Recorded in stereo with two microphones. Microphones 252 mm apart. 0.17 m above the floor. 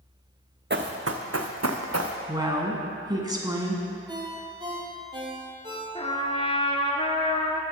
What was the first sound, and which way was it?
Running footsteps, 45° right (ahead or behind).